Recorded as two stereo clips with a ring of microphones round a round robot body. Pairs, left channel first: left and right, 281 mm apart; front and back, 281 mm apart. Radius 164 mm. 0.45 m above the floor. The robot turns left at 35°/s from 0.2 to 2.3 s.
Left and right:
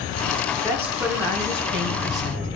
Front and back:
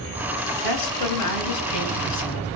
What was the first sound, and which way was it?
A woman speaking, 5° left.